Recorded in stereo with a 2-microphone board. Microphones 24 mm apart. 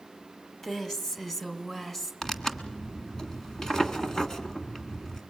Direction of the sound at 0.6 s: 15° left (ahead or behind).